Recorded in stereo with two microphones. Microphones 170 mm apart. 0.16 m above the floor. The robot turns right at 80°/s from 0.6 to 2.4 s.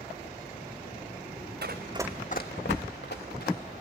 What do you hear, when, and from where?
1.6 s running footsteps: 80° right, 1.0 m; by 3.6 s 65° left (ahead or behind), 2 m